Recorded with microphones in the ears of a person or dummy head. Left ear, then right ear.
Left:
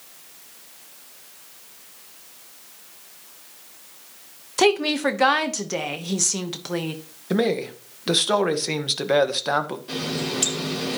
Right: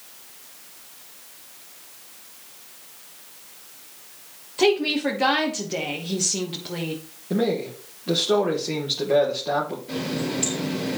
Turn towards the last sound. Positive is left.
turn(degrees=45)  # may be behind; listen again after turning